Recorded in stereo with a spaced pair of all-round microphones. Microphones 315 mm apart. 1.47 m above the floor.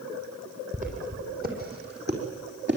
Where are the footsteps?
25° right (ahead or behind), 4 m; by 2.8 s 35° right (ahead or behind), 4.5 m.